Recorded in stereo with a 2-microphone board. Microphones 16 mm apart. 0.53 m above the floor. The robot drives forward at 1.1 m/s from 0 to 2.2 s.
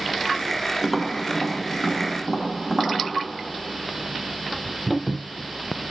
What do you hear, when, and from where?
0.8 s tapping: 5° right (ahead or behind), 1.4 m